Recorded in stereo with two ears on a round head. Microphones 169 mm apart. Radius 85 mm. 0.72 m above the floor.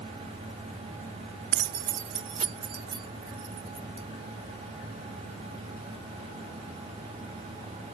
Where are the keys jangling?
60° right (ahead or behind); by 4.1 s 20° right (ahead or behind).